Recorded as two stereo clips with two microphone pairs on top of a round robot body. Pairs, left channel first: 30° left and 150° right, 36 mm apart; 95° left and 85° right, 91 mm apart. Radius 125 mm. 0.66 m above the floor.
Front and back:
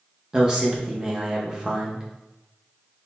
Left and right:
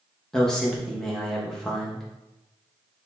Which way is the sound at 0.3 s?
165° left.